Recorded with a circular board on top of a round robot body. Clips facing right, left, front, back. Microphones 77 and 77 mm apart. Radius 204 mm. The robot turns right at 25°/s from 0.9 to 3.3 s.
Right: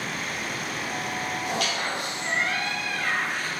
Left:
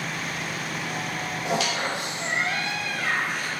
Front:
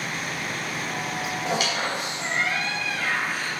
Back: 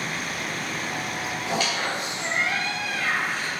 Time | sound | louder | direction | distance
1.4 | a squeak | left 5 dB, even | 70° left | 2 m